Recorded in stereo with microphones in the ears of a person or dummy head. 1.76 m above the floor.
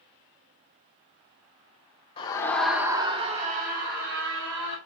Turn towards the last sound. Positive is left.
turn(degrees=-70)  # may be behind; listen again after turning